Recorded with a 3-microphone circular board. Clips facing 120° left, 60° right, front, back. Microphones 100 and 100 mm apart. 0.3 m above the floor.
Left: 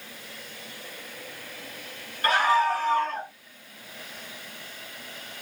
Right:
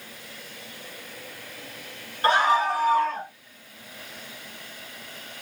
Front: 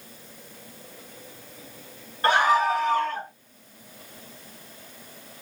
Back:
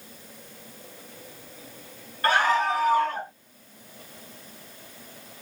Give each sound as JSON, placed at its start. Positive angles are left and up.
{"t": 2.2, "sound": "a scream", "azimuth_deg": -45, "distance_m": 1.2}